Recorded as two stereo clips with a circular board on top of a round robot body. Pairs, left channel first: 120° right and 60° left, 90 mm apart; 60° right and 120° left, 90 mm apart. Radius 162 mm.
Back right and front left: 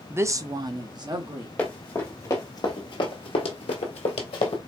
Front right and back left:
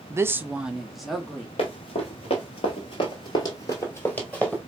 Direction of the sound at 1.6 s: 45° right.